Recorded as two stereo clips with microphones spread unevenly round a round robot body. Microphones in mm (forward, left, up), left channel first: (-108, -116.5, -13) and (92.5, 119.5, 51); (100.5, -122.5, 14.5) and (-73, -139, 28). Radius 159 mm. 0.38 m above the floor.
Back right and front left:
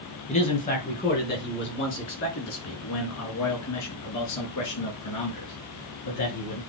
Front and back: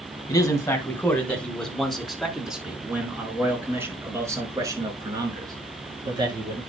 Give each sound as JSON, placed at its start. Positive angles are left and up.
{"t": 0.3, "sound": "a man speaking", "azimuth_deg": -65, "distance_m": 3.5}